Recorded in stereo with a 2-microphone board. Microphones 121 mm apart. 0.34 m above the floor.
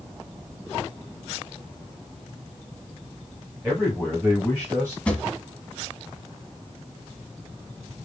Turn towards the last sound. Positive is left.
turn(degrees=10)  # may be behind; listen again after turning